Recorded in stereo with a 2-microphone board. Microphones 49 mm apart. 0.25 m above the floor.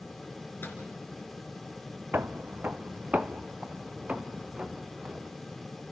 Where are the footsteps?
45° right (ahead or behind), 0.9 m; by 5.3 s 20° right (ahead or behind), 3 m.